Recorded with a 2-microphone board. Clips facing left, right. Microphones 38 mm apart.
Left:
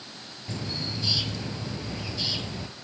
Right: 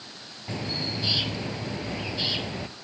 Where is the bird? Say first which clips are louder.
Right 2 dB; 30° right (ahead or behind), 0.6 m.